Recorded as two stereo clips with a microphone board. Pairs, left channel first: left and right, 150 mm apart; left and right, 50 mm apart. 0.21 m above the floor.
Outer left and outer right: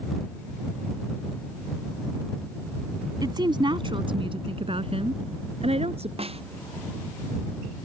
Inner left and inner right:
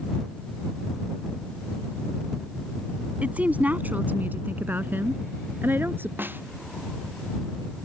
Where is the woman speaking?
30° right (ahead or behind); by 6.1 s 45° right (ahead or behind).